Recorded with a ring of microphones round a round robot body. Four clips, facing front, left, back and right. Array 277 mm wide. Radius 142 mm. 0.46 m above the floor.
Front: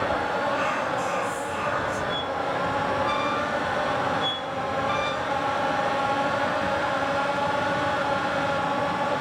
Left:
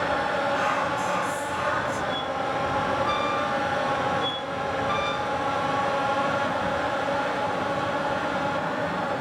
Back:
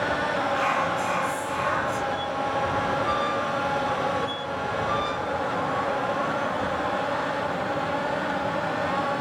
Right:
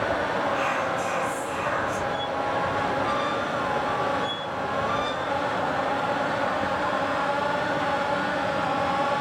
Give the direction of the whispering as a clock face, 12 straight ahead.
6 o'clock.